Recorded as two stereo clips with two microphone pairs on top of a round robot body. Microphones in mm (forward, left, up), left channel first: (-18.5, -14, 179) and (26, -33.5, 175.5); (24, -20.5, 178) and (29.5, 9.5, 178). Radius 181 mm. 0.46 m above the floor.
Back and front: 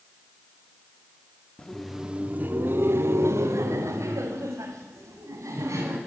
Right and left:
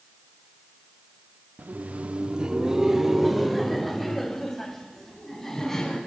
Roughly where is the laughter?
Left.